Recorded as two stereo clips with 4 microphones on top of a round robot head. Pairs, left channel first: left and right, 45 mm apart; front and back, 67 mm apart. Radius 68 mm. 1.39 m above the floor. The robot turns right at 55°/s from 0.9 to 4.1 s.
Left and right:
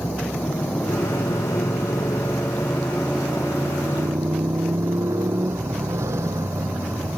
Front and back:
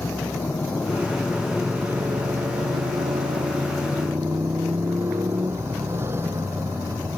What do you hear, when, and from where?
0.0 s a motorcycle: 65° left; by 7.2 s 120° right